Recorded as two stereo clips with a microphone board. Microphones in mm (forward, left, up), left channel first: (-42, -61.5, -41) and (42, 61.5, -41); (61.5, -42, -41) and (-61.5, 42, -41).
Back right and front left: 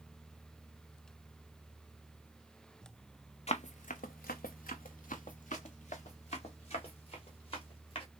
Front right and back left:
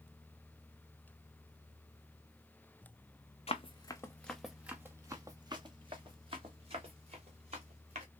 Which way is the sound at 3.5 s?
80° right.